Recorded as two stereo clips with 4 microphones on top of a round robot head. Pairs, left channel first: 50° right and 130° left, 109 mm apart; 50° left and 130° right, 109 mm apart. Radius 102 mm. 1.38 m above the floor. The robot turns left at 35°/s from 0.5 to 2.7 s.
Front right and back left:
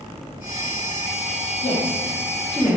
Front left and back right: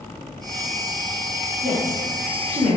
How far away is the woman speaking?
About 2.0 m.